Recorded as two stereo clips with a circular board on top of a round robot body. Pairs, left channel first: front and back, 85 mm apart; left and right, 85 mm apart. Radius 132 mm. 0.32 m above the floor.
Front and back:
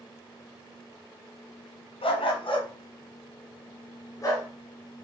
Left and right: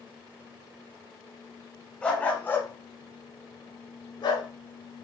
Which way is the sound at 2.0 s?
10° left.